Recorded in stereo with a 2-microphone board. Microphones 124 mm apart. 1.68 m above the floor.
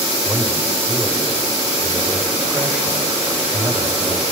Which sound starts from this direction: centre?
A man speaking, at 0.2 s.